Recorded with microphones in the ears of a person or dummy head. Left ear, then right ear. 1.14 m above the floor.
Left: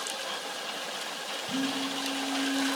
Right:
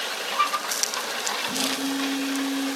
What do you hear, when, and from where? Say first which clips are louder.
1.5 s a phone buzzing: right 5 dB; 70° right (ahead or behind), 7.5 m